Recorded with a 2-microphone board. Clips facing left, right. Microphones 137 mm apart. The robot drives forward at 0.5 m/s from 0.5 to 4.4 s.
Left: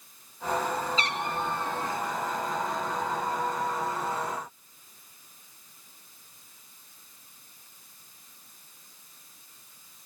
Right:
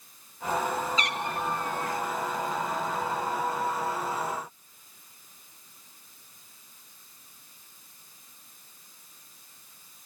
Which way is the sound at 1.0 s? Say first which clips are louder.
Even; 30° left (ahead or behind).